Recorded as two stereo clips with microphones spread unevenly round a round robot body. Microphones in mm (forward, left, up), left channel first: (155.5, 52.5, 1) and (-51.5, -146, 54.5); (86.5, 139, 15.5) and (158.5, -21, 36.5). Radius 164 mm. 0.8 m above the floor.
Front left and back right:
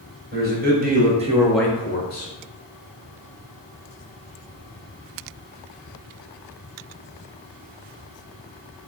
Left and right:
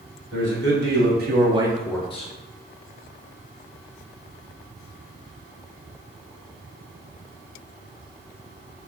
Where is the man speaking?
75° right, 1.4 m; by 2.3 s 80° left, 0.8 m.